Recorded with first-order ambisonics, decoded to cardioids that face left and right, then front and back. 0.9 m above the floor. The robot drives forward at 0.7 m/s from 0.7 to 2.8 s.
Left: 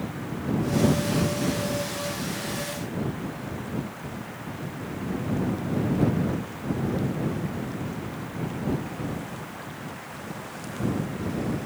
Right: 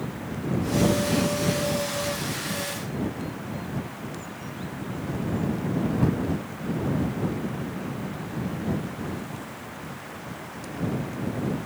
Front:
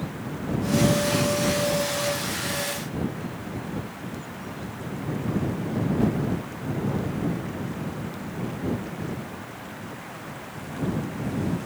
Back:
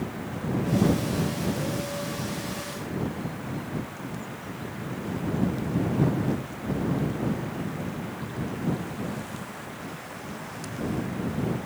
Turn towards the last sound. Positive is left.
No sound to turn to.